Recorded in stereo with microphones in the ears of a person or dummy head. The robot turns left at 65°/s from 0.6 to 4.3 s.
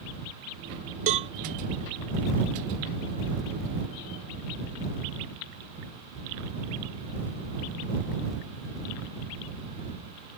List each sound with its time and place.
1.1 s a cowbell: 40° right (ahead or behind); by 1.3 s 30° right (ahead or behind)